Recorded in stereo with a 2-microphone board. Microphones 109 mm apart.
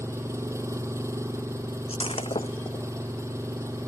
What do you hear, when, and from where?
0.0 s an engine running: 25° right (ahead or behind)
1.9 s breaking glass: 60° left (ahead or behind)